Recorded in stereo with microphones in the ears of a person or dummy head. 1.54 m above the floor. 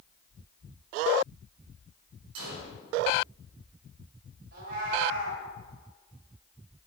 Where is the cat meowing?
50° right (ahead or behind), 3.5 m.